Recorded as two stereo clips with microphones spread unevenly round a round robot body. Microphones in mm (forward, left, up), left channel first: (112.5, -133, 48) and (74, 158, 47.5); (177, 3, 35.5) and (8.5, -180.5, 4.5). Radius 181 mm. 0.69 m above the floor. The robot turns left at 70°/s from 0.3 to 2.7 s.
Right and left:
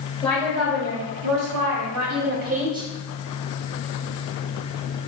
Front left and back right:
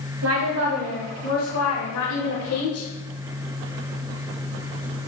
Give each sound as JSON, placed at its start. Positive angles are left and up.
{"t": 0.2, "sound": "a woman speaking", "azimuth_deg": -170, "distance_m": 3.0}